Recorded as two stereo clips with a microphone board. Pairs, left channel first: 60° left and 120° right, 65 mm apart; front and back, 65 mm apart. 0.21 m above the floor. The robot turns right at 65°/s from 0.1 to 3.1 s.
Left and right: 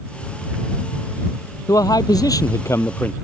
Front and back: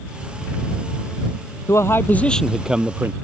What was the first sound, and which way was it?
A man speaking, 35° left.